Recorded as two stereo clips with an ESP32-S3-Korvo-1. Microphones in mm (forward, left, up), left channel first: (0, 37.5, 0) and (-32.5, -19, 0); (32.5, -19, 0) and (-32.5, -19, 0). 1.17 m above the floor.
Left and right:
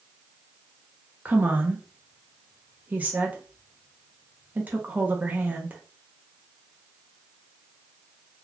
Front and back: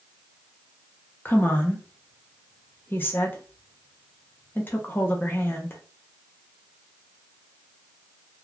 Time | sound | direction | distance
1.2 | a woman speaking | 55° right | 0.8 m